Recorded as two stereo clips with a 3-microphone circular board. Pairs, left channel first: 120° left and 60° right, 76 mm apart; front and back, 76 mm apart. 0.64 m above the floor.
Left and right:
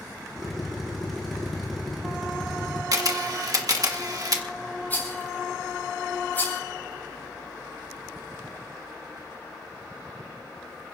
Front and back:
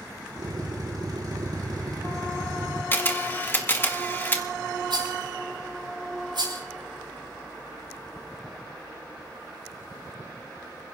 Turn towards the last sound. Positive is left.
turn(degrees=-175)